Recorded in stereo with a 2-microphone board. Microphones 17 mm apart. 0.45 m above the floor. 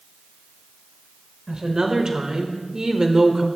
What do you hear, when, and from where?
1.5 s a woman speaking: 45° right (ahead or behind), 1.8 m; by 3.5 s 30° right (ahead or behind), 1.6 m